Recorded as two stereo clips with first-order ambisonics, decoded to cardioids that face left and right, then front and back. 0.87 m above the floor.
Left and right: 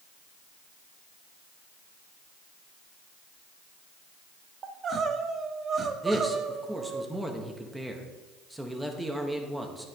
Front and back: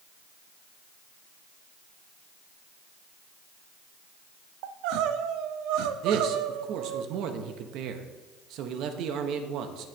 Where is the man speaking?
175° right, 1.0 m.